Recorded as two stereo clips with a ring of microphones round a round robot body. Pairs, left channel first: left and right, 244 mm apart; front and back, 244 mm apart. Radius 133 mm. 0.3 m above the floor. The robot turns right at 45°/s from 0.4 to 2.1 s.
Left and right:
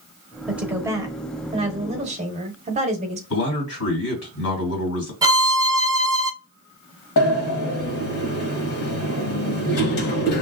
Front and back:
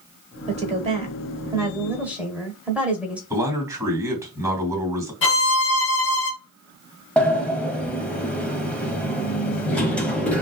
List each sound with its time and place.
0.5 s a woman speaking: 175° right, 1.1 m; by 3.2 s 100° right, 1.1 m
3.3 s a man speaking: 105° left, 2.5 m
5.2 s a violin: 20° right, 0.7 m
7.2 s a sliding door: 85° left, 1.3 m